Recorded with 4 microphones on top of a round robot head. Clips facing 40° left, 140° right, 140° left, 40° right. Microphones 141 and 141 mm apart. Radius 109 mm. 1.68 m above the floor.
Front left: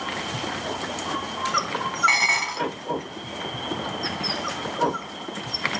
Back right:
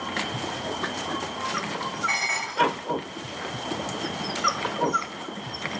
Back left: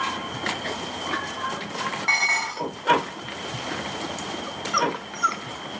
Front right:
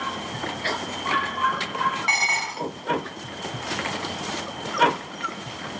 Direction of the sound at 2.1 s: 30° left.